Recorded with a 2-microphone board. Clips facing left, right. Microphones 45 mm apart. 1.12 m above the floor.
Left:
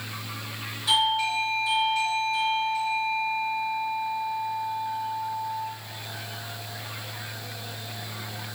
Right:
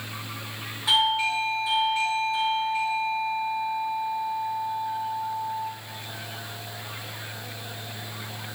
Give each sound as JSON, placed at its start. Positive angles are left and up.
{"t": 0.9, "sound": "a doorbell", "side_deg": -30, "distance_m": 1.4}